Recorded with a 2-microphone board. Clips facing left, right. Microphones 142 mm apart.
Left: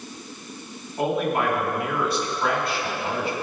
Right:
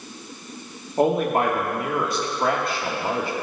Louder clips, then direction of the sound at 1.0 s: Right 4 dB; 40° right (ahead or behind).